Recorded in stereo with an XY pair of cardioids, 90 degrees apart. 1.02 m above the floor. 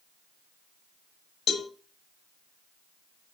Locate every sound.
1.5 s a cowbell: 70° left, 1.2 m